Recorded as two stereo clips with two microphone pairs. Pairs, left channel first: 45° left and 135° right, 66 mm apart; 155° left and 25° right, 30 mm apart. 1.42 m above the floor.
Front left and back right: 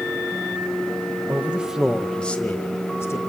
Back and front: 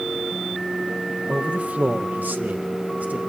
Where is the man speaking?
70° right, 1.4 m; by 3.2 s straight ahead, 1.9 m.